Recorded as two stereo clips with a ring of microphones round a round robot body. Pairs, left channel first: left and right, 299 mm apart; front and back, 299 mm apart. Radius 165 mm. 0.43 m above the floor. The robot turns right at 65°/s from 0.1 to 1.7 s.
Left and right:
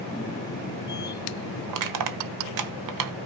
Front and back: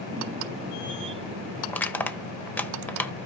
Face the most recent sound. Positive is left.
turn(degrees=-85)